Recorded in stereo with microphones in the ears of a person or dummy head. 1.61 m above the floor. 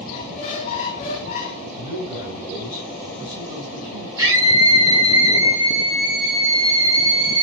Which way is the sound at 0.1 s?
25° left (ahead or behind).